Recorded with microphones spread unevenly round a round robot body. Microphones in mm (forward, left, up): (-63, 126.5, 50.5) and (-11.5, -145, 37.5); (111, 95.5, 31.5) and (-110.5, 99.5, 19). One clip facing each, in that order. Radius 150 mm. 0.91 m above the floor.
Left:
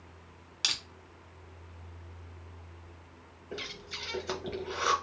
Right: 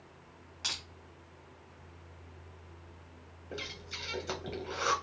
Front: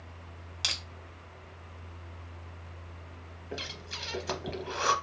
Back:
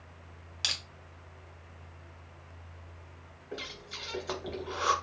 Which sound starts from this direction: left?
Crushing, at 0.6 s.